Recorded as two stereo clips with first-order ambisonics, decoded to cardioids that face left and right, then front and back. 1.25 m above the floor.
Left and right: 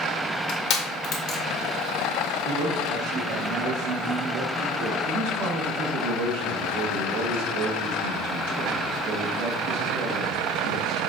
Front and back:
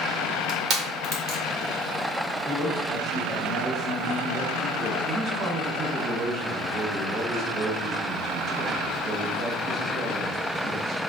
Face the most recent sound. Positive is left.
turn(degrees=-120)